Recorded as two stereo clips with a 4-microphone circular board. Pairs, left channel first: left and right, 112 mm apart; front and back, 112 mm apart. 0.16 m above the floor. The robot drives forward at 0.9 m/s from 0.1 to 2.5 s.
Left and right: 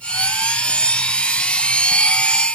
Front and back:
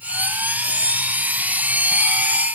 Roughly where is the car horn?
I don't hear a car horn.